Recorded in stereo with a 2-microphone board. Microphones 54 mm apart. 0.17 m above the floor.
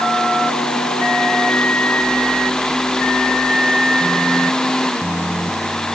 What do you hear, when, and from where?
Only background noise.